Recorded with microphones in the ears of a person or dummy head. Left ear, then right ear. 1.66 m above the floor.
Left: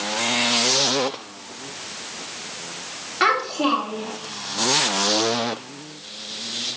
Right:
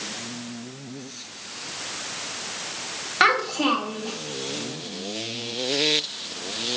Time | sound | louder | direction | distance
3.2 | a child speaking | even | 25° right (ahead or behind) | 1.9 m